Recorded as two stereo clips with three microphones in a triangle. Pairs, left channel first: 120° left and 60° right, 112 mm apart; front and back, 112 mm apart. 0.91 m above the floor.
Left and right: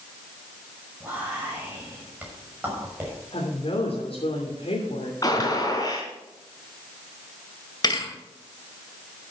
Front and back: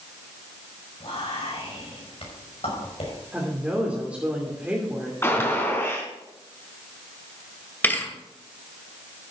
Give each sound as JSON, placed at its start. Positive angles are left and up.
{"t": 1.0, "sound": "whispering", "azimuth_deg": 10, "distance_m": 6.0}
{"t": 3.3, "sound": "a woman speaking", "azimuth_deg": 105, "distance_m": 3.0}
{"t": 5.2, "sound": "a gunshot", "azimuth_deg": 65, "distance_m": 3.0}
{"t": 7.8, "sound": "a thud", "azimuth_deg": 70, "distance_m": 2.0}